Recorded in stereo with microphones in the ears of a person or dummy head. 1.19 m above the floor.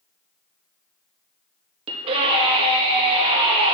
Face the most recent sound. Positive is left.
turn(degrees=-30)  # may be behind; listen again after turning